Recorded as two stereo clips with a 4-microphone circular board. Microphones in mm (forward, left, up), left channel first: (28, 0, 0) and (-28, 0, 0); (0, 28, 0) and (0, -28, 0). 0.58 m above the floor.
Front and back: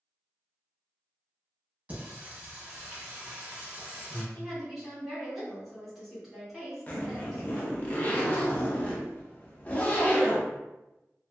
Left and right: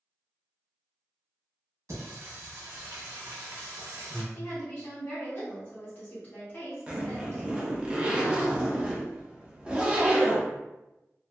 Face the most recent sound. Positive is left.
turn(degrees=-35)